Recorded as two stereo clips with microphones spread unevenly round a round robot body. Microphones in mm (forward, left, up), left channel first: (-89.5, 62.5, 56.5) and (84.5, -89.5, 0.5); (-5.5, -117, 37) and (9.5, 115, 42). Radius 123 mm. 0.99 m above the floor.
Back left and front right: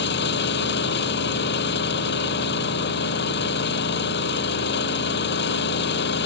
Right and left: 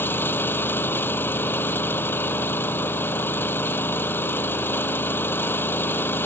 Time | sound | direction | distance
0.0 | an engine running | 175° right | ?